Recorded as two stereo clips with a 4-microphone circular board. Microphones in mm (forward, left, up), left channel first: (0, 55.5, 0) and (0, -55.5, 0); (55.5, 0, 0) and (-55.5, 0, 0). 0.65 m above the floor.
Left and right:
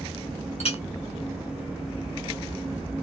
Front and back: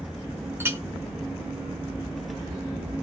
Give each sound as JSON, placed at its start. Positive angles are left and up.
{"t": 0.6, "sound": "a clink", "azimuth_deg": 110, "distance_m": 1.2}